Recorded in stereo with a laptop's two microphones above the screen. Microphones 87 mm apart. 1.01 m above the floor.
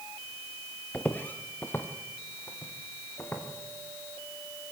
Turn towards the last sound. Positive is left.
turn(degrees=25)  # may be behind; listen again after turning